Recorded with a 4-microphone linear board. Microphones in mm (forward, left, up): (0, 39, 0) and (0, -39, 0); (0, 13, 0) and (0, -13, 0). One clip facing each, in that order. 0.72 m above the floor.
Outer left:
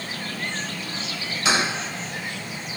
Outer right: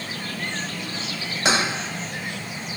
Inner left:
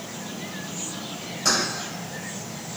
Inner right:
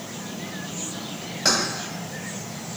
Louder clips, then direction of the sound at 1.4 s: Outer right 1 dB, inner right 1 dB; 70° right (ahead or behind).